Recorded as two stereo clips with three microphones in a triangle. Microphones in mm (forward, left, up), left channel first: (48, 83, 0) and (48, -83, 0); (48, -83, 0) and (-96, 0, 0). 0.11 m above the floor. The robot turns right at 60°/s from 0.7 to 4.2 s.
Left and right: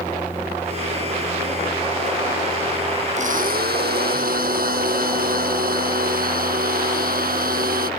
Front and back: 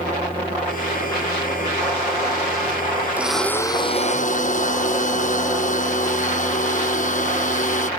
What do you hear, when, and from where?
3.2 s a blender: 130° right; by 7.9 s 65° right